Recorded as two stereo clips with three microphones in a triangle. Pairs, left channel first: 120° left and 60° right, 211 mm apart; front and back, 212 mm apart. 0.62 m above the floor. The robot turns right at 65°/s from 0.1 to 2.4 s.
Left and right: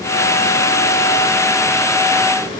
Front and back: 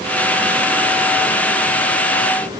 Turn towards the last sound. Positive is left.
No sound to turn to.